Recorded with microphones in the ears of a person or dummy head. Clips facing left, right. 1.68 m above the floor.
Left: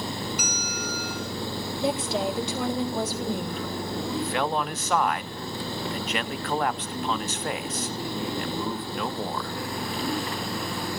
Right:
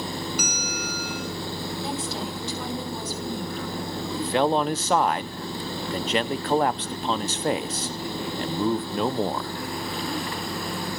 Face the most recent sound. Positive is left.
turn(degrees=-25)  # may be behind; listen again after turning